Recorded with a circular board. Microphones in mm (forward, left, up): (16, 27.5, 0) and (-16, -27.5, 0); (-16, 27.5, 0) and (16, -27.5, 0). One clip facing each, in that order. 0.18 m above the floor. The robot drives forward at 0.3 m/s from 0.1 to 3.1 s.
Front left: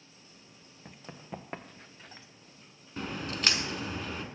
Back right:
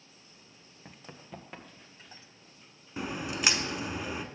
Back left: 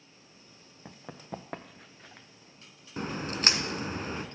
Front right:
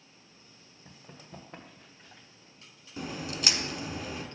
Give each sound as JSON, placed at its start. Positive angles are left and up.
{"t": 0.8, "sound": "running footsteps", "azimuth_deg": 150, "distance_m": 0.7}
{"t": 3.0, "sound": "a crack", "azimuth_deg": 160, "distance_m": 0.5}